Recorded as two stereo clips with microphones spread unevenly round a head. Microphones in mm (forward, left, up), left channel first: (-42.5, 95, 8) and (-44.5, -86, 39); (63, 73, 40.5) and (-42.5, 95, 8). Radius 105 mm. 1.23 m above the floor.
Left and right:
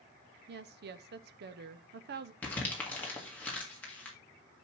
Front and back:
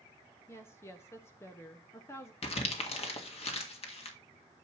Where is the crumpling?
5° left, 1.8 m.